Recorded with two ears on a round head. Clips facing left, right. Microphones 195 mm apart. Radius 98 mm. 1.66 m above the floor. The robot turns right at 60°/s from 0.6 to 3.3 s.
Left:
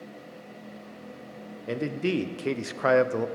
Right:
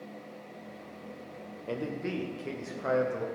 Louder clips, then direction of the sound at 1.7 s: Left 6 dB; 20° left.